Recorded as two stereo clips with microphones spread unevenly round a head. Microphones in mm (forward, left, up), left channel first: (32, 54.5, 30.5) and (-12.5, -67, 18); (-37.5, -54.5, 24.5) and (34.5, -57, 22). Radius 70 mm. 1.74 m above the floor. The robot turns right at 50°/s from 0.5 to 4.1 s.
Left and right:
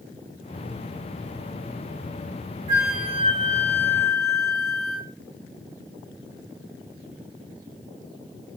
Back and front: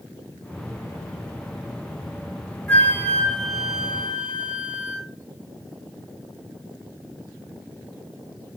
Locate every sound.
2.7 s a flute: 150° right, 1.2 m; by 5.1 s 75° right, 1.2 m